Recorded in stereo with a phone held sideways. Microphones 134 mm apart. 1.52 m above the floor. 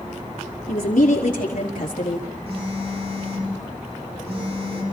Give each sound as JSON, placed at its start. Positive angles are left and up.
{"t": 0.7, "sound": "a woman speaking", "side_deg": 90, "distance_m": 4.0}
{"t": 2.5, "sound": "a phone buzzing", "side_deg": -50, "distance_m": 5.5}